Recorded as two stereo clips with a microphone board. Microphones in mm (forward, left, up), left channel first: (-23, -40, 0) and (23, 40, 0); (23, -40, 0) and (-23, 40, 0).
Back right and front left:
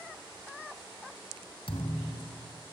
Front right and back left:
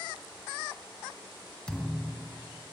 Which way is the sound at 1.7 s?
140° right.